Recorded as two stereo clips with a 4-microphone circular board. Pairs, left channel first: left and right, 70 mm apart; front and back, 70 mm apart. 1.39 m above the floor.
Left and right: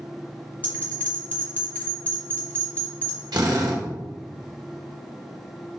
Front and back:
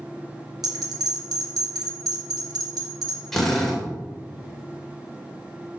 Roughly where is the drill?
Right.